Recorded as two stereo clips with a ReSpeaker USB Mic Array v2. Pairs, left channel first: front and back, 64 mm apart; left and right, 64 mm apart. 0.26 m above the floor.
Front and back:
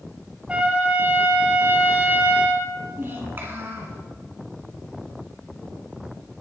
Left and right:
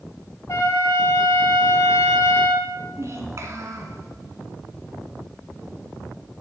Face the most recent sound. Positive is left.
turn(degrees=-125)